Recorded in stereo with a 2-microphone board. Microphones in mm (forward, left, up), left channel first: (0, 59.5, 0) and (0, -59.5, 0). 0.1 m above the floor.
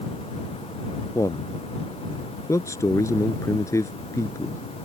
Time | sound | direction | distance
1.1 | a man speaking | 25° left (ahead or behind) | ?